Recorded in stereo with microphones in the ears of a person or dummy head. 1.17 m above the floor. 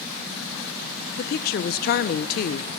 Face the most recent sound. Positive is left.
turn(degrees=45)  # may be behind; listen again after turning